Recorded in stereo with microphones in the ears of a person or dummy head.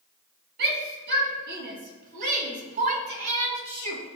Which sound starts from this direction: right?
A shout, at 0.6 s.